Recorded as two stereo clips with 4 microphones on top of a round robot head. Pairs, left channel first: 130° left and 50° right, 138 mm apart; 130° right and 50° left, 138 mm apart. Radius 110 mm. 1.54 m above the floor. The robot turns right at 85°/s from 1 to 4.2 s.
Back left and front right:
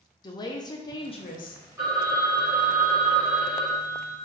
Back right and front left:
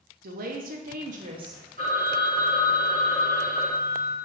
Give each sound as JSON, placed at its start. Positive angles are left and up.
{"t": 0.2, "sound": "a woman speaking", "azimuth_deg": 70, "distance_m": 0.5}
{"t": 1.8, "sound": "a phone ringing", "azimuth_deg": 25, "distance_m": 0.8}